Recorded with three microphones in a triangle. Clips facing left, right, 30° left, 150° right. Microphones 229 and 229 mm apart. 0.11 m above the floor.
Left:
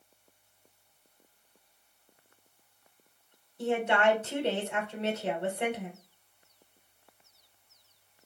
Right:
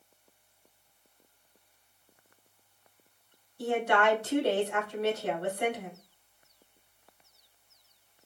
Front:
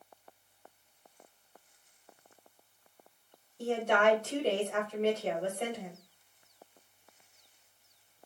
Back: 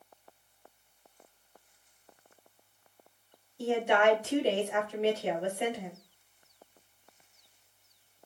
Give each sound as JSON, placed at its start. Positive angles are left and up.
{"t": 3.6, "sound": "a woman speaking", "azimuth_deg": 140, "distance_m": 1.3}